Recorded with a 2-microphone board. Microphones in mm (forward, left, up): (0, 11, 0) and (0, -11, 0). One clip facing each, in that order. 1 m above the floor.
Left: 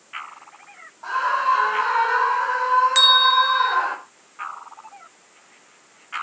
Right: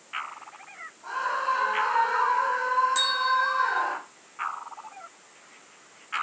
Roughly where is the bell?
Left.